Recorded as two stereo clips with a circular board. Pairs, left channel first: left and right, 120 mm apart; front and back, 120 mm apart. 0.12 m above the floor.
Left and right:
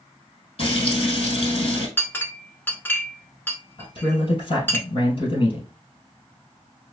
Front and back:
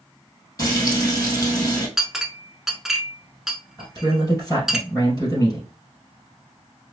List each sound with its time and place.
0.6 s frying: 60° left, 2 m
2.0 s a clink: 100° left, 0.6 m
3.8 s a man speaking: 65° left, 2 m